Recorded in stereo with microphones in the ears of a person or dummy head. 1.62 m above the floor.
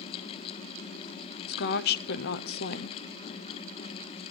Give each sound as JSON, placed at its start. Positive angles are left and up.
{"t": 1.5, "sound": "a woman speaking", "side_deg": 65, "distance_m": 0.7}